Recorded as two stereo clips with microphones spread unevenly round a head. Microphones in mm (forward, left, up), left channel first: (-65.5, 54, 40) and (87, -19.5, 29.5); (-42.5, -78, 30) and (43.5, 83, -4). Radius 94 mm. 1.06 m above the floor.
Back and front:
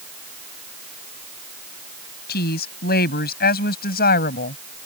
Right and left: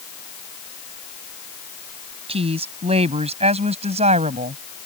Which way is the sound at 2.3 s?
125° left.